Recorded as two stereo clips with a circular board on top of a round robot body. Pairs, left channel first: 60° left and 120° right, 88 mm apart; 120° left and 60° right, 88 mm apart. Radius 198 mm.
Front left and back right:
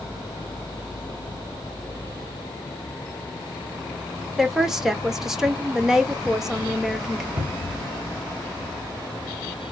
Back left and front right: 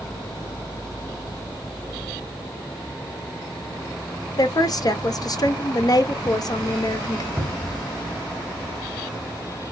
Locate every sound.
4.4 s a woman speaking: 155° left, 0.9 m
7.4 s a cupboard door: 130° right, 1.5 m